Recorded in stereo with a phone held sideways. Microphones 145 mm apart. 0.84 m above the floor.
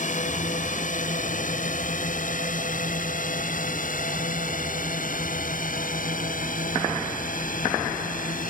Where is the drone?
65° left (ahead or behind); by 8.5 s 75° left (ahead or behind).